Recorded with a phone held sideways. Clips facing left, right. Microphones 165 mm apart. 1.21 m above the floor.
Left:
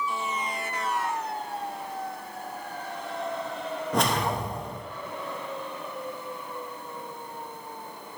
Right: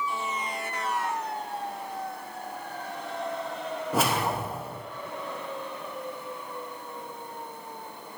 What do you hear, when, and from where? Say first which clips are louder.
3.9 s a whoosh: even; 5° right (ahead or behind), 0.7 m